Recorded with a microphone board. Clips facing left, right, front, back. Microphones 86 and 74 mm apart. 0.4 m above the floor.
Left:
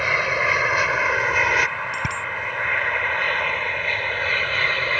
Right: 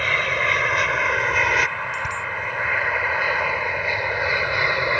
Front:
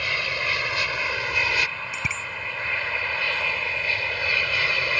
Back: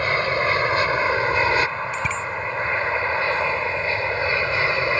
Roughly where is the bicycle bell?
Left.